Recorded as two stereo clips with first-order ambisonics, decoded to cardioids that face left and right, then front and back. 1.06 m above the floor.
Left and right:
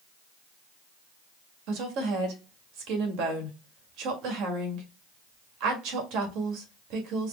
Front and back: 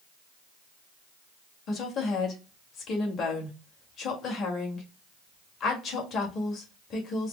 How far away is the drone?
I don't hear a drone.